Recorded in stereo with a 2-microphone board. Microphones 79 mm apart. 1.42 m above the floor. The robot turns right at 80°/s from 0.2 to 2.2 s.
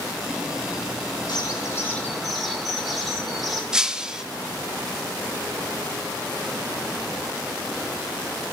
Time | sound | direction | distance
1.3 | a bird | 110° left | 2.5 m
3.7 | breaking glass | 10° right (ahead or behind) | 0.8 m